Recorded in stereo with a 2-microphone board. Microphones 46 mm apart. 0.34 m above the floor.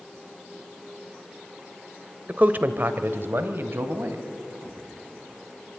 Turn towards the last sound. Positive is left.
turn(degrees=-55)  # may be behind; listen again after turning